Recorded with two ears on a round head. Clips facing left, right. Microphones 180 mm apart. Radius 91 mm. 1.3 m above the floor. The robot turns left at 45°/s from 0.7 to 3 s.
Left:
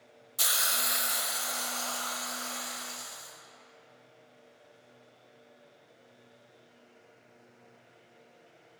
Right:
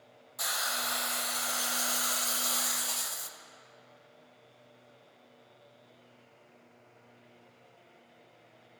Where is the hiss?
35° left, 0.5 m; by 3.3 s 65° right, 0.5 m.